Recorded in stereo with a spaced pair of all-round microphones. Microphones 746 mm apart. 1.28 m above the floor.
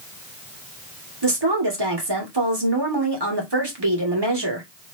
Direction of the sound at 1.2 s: 30° right (ahead or behind).